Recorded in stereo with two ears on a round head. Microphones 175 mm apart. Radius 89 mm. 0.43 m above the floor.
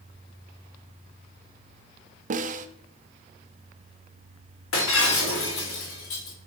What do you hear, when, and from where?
2.3 s a snare drum: 40° right (ahead or behind), 0.5 m
4.7 s breaking glass: 70° left (ahead or behind), 3.5 m